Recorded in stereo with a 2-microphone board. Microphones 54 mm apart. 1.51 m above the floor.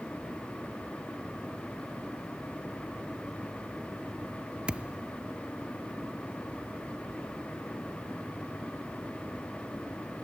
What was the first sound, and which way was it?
A thud, 20° right (ahead or behind).